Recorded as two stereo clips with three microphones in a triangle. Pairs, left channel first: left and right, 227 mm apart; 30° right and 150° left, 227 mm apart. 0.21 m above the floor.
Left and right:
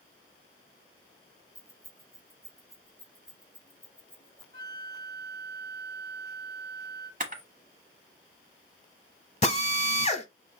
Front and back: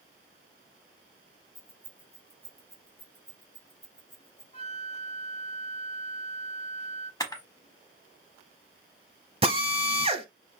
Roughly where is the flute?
Right.